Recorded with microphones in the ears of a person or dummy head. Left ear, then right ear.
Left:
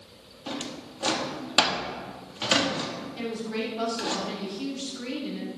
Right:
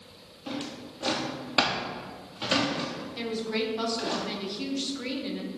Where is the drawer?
10° left (ahead or behind), 1.0 m.